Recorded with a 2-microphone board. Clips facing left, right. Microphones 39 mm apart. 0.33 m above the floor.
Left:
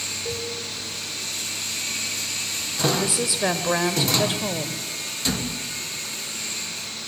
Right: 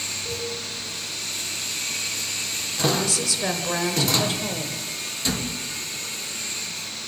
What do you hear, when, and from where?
0.2 s a cowbell: 35° left (ahead or behind), 4.5 m
3.0 s a woman speaking: 20° left (ahead or behind), 1.4 m